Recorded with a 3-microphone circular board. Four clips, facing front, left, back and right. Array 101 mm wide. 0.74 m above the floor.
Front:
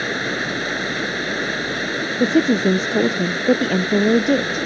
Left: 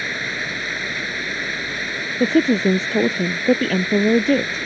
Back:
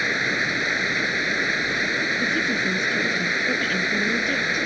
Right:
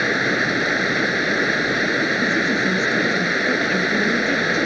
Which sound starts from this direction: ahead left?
A woman speaking, at 2.2 s.